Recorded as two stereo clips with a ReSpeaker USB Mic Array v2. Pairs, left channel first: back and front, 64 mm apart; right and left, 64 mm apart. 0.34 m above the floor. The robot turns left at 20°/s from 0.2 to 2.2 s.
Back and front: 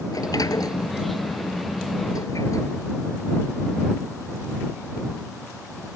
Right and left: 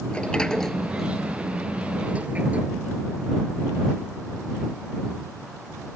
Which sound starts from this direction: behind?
A sliding door, at 0.1 s.